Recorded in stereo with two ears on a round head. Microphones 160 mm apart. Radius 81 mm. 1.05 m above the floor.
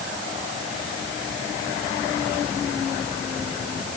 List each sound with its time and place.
Only background noise.